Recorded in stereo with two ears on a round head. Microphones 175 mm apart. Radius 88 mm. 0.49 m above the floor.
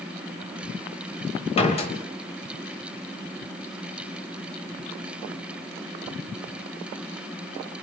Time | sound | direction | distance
1.6 | a door slam | 30° left (ahead or behind) | 2.0 m